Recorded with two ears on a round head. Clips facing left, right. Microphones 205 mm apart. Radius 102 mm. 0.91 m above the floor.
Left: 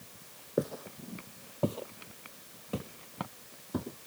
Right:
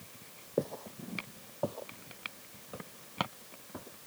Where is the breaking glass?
No breaking glass in this recording.